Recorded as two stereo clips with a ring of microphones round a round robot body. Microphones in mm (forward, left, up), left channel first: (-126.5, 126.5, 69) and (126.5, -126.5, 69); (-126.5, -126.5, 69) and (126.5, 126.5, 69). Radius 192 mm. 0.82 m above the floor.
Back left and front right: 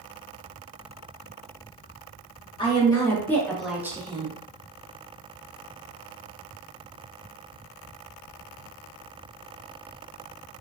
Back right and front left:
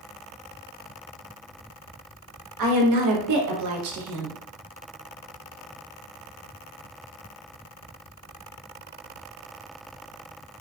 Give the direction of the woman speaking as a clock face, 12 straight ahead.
10 o'clock.